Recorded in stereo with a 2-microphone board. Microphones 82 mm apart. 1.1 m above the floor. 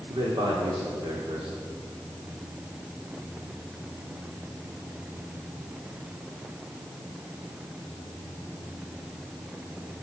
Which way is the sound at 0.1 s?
85° right.